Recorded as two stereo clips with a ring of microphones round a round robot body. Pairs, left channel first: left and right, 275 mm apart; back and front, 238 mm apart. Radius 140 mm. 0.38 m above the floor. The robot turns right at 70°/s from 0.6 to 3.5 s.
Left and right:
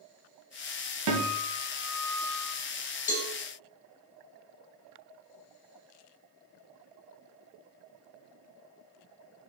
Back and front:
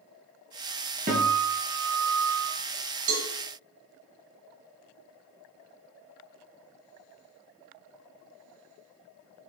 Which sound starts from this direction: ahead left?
A cowbell, at 3.1 s.